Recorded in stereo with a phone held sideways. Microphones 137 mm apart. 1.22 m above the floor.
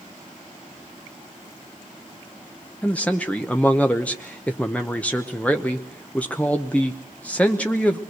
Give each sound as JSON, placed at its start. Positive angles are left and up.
{"t": 2.8, "sound": "a man speaking", "side_deg": 10, "distance_m": 1.0}